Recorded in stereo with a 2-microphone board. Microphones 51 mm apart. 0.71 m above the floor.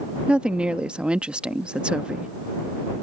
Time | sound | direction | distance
0.3 | a woman speaking | 25° right (ahead or behind) | ?